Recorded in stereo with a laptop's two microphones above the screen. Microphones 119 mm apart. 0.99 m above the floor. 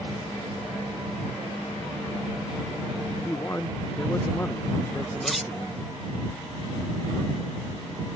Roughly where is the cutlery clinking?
Centre.